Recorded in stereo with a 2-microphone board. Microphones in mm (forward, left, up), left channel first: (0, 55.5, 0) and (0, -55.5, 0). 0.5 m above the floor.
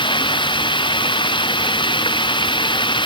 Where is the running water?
50° left (ahead or behind).